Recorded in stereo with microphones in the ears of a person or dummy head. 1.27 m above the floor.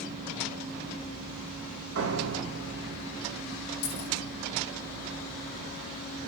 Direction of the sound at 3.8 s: 65° left (ahead or behind).